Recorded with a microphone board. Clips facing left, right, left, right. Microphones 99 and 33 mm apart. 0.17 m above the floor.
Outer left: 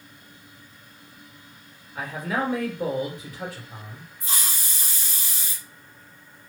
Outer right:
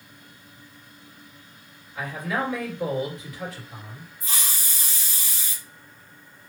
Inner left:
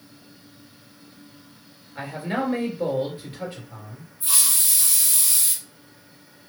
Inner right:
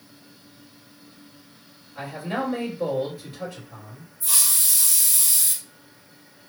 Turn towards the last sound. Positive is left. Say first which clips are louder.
# outer left 1 dB, inner left 1 dB
turn(degrees=30)  # may be behind; listen again after turning